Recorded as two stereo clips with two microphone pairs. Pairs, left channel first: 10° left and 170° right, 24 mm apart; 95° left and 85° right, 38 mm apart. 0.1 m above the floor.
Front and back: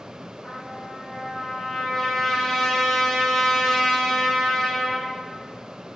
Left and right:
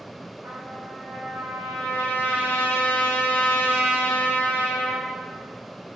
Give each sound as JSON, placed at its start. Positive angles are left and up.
{"t": 0.4, "sound": "a trumpet", "azimuth_deg": -60, "distance_m": 3.5}